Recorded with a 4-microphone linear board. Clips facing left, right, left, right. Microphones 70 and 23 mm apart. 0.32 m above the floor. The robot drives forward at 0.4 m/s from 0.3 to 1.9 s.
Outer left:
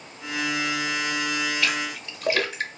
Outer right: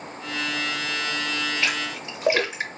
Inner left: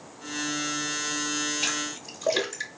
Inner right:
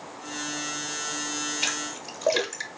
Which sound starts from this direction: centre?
A splash, at 1.6 s.